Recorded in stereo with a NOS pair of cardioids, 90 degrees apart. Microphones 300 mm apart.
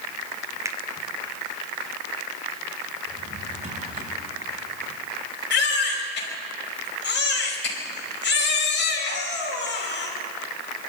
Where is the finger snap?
10° right, 1.4 m.